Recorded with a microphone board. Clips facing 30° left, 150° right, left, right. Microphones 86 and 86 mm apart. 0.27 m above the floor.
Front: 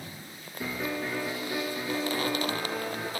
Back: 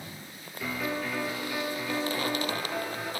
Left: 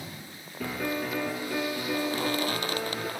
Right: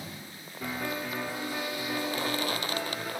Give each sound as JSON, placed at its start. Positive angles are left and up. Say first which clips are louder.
{"t": 0.6, "sound": "a piano", "louder": "even, left 3 dB", "azimuth_deg": 85, "distance_m": 4.0}